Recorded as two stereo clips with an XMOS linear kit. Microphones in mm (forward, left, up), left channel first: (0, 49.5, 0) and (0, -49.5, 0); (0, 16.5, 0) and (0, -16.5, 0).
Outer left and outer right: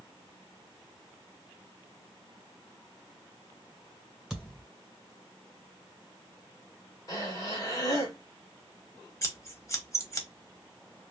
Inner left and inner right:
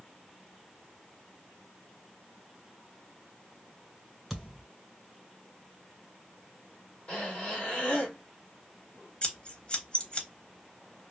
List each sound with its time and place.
4.3 s a thud: centre (ahead or behind), 1.6 m
7.1 s breathing: 35° left (ahead or behind), 1.2 m
9.2 s scissors: 30° left (ahead or behind), 0.8 m